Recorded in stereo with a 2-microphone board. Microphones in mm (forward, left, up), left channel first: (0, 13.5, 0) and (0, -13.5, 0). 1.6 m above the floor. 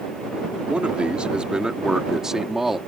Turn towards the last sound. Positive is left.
turn(degrees=-10)  # may be behind; listen again after turning